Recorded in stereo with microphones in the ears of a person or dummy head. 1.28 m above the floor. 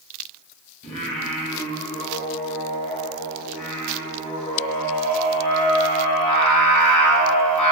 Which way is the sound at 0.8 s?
35° left (ahead or behind).